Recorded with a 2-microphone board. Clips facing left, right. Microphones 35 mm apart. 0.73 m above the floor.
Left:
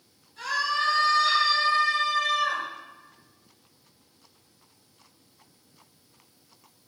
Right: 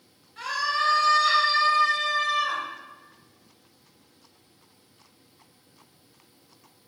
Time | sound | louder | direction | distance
0.4 | a scream | even | 40° right (ahead or behind) | 3 m